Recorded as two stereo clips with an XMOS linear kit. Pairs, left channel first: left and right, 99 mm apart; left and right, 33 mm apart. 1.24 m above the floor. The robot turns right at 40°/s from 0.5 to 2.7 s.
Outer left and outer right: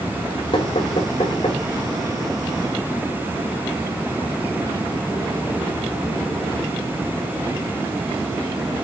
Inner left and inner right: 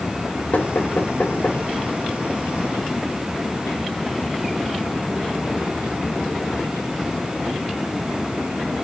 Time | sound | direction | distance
0.5 | knocking | 70° left (ahead or behind) | 5 m